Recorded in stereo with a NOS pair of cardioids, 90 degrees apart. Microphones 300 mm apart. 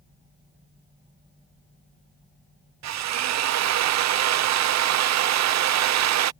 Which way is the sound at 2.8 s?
60° right.